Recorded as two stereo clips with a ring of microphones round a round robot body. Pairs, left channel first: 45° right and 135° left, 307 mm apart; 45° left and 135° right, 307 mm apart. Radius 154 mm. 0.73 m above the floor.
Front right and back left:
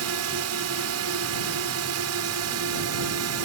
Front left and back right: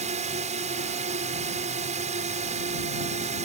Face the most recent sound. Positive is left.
turn(degrees=160)